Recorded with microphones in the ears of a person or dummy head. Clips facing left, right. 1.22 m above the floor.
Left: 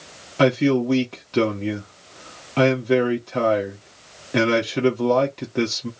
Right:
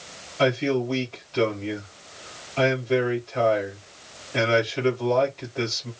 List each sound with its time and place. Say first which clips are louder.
0.4 s a man speaking: left 5 dB; 55° left (ahead or behind), 1.1 m